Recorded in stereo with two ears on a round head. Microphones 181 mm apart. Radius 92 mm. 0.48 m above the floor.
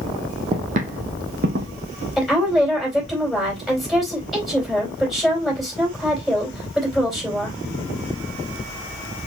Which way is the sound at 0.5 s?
25° right (ahead or behind).